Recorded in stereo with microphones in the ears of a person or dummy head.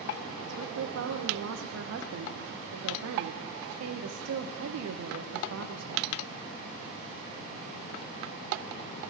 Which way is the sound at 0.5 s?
85° right.